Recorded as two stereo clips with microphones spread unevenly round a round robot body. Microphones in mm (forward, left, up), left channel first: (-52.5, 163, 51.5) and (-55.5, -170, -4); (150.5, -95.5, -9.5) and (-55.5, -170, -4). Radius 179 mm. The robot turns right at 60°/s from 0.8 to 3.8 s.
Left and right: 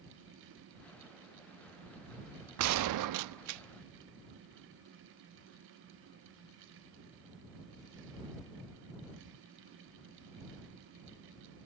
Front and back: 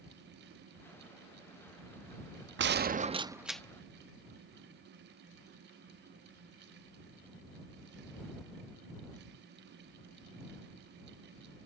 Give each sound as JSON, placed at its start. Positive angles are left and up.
{"t": 2.6, "sound": "a gunshot", "azimuth_deg": -125}